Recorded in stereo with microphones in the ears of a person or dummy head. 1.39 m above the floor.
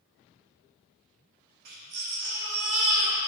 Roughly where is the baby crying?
Right.